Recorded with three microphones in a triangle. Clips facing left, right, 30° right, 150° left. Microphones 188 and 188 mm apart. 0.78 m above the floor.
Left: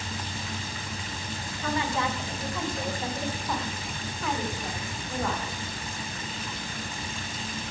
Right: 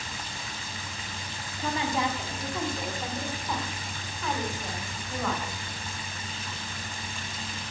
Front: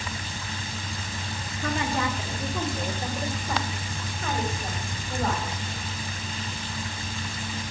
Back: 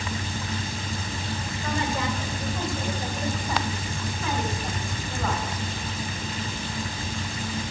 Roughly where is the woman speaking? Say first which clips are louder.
Even, front 2 dB; ahead right.